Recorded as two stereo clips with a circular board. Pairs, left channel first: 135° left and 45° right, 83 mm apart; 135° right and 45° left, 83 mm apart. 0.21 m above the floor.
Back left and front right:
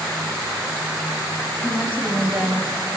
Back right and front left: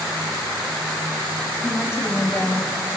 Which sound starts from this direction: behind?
A woman speaking, at 1.6 s.